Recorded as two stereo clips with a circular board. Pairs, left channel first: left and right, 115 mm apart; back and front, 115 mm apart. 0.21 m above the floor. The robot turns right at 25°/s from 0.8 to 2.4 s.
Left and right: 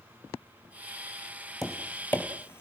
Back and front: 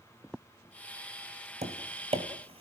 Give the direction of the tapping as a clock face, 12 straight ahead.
12 o'clock.